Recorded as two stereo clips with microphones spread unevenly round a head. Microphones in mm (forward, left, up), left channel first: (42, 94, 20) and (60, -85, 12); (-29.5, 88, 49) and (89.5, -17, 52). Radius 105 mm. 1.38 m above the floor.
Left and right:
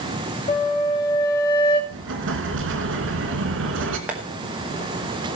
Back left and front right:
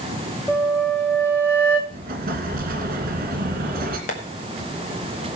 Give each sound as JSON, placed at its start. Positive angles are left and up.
{"t": 0.5, "sound": "a flute", "azimuth_deg": 60, "distance_m": 2.0}
{"t": 1.9, "sound": "an explosion", "azimuth_deg": -85, "distance_m": 2.5}
{"t": 4.1, "sound": "tapping", "azimuth_deg": -170, "distance_m": 1.9}